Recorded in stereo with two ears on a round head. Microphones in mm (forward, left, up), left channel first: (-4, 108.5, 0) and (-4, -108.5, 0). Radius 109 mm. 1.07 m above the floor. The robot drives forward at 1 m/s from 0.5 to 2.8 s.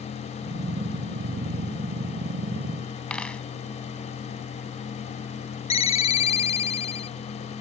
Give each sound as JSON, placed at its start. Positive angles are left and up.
{"t": 3.1, "sound": "a dropped coin", "side_deg": 5}
{"t": 5.7, "sound": "a ringtone", "side_deg": 30}